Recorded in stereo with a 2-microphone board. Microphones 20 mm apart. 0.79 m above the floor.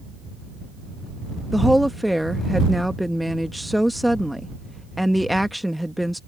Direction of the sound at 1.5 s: Centre (ahead or behind).